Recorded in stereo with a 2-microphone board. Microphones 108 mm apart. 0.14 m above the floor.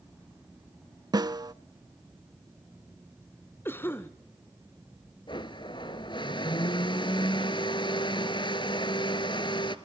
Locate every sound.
1.1 s a snare drum: 40° right (ahead or behind), 0.5 m
3.6 s a cough: 20° left (ahead or behind), 1.2 m
5.3 s a blender: 50° left (ahead or behind), 1.1 m